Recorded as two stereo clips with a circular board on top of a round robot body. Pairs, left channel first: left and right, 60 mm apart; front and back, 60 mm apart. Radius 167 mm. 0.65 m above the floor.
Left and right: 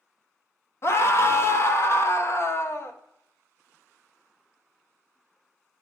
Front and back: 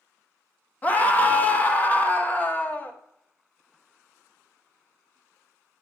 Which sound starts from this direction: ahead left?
A scream, at 0.8 s.